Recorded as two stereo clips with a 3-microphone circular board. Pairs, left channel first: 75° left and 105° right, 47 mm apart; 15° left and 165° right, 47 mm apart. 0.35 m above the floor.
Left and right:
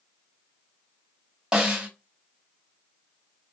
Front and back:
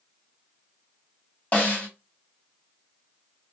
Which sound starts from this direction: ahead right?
A snare drum, at 1.5 s.